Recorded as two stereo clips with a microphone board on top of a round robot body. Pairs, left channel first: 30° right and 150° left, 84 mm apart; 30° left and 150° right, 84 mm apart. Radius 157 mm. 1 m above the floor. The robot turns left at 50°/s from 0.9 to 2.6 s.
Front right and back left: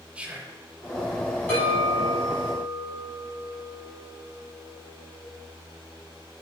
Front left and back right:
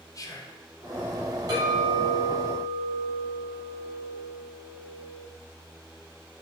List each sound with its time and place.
0.1 s whispering: 75° left, 0.6 m
1.5 s a clink: 100° right, 1.1 m; by 5.2 s 155° right, 1.1 m